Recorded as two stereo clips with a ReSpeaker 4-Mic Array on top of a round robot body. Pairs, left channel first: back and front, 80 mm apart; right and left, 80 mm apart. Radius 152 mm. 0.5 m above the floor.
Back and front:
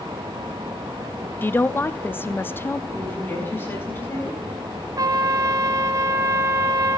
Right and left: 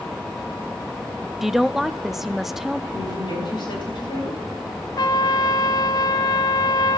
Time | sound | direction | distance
1.4 | a woman speaking | 170° left | 0.6 m
2.9 | a woman speaking | 115° right | 4.5 m
5.0 | a trumpet | 50° right | 0.5 m